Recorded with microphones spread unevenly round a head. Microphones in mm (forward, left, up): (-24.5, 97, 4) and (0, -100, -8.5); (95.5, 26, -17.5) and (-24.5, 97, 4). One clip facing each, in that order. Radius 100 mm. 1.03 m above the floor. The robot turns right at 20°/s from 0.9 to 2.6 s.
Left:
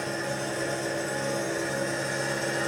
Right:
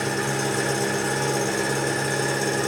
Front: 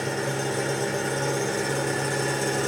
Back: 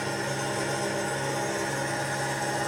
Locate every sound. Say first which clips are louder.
0.0 s an engine running: right 6 dB, front 3 dB; 85° right, 1.8 m; by 2.7 s 50° right, 1.8 m